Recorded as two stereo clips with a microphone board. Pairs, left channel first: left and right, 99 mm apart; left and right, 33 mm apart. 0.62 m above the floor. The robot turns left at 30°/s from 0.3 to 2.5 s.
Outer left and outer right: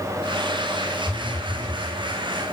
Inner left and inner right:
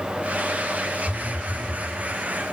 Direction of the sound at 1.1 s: 25° left (ahead or behind).